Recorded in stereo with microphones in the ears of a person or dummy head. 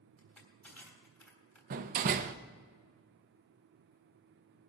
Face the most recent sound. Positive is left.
turn(degrees=-45)  # may be behind; listen again after turning